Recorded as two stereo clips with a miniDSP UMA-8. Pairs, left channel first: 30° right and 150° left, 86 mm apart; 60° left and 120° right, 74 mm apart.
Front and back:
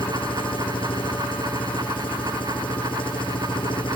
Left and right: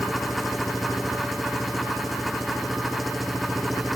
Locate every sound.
0.0 s an engine running: 30° right